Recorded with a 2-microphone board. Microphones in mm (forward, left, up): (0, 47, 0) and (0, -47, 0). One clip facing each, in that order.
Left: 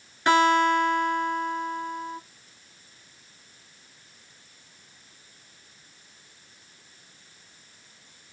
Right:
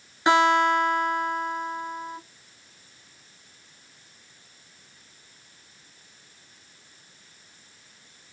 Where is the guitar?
20° right (ahead or behind), 1.1 m.